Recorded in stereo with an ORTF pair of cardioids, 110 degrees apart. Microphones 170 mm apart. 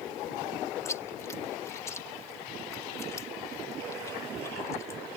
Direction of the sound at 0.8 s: 15° left.